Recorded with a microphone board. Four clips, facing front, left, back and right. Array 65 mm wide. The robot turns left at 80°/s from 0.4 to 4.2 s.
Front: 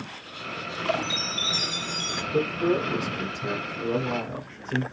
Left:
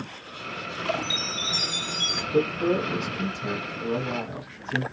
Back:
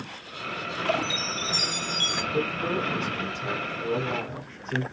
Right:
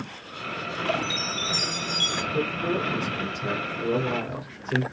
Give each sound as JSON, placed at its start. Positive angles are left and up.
{"t": 1.0, "sound": "a chime", "azimuth_deg": -105, "distance_m": 1.0}
{"t": 2.3, "sound": "a man speaking", "azimuth_deg": 65, "distance_m": 2.0}